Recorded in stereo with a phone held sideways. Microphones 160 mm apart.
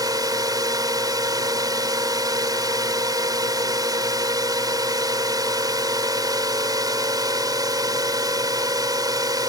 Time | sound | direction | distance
0.0 | a drone | 25° right (ahead or behind) | ?